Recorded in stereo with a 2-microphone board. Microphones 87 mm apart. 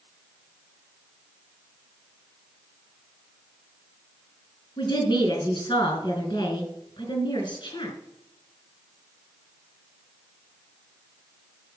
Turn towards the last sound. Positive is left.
turn(degrees=60)  # may be behind; listen again after turning